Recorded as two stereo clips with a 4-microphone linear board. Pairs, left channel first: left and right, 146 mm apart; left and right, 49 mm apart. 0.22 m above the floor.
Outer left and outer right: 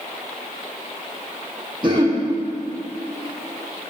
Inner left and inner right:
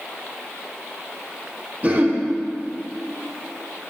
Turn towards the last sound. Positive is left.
turn(degrees=-30)  # may be behind; listen again after turning